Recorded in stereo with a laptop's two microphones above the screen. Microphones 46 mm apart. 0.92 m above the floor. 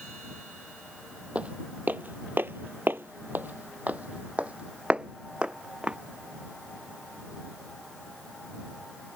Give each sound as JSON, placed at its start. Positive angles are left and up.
{"t": 1.4, "sound": "footsteps", "side_deg": -30}